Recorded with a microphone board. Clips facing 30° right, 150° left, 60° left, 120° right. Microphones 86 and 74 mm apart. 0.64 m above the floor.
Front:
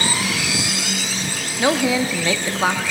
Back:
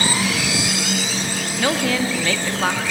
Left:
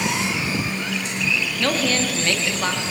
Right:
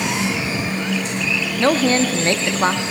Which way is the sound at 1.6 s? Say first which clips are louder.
Front 3 dB, right 7 dB; 95° right.